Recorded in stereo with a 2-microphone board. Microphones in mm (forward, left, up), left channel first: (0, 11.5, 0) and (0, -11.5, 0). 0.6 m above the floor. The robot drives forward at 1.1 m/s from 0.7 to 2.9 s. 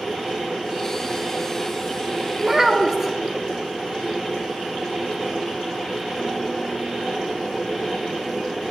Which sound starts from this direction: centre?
A child speaking, at 2.4 s.